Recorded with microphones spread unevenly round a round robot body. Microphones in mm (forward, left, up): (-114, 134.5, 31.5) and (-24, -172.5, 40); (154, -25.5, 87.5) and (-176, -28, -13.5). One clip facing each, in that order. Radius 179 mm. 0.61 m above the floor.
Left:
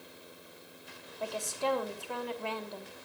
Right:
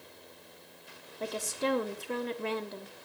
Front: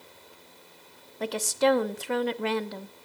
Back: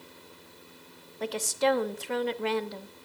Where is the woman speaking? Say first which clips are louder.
Right 2 dB, front 3 dB; 10° right, 0.8 m.